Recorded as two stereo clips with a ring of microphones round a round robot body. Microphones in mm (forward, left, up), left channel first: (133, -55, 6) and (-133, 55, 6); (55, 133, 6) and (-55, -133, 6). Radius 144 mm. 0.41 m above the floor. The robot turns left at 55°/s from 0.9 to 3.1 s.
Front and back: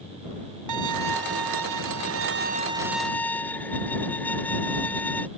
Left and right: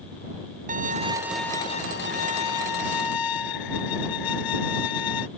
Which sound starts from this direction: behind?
A violin, at 0.7 s.